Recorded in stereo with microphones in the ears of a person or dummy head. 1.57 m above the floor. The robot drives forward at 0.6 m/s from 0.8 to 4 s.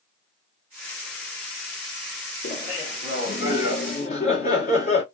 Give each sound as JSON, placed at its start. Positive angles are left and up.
{"t": 2.4, "sound": "laughter", "side_deg": 60, "distance_m": 1.9}